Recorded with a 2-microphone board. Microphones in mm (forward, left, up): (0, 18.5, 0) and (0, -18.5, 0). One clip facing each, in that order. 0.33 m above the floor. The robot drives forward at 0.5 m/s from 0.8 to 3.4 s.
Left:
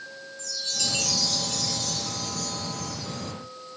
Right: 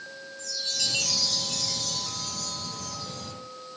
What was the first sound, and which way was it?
A chime, 10° right (ahead or behind).